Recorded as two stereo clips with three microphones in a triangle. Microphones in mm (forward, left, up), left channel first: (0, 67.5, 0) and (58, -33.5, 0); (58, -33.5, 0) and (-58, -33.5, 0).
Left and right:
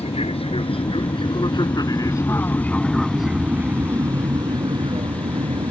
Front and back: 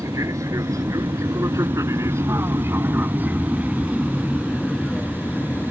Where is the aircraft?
120° left; by 5.7 s 80° right.